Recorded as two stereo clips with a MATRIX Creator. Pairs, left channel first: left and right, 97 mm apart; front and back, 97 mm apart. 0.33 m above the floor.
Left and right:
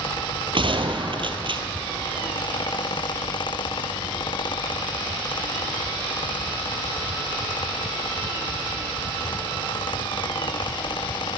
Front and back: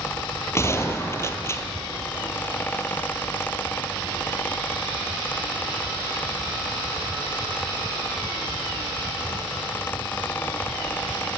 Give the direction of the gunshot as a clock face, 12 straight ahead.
2 o'clock.